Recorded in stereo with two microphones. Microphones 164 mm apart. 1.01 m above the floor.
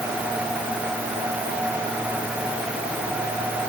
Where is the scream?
I don't hear a scream.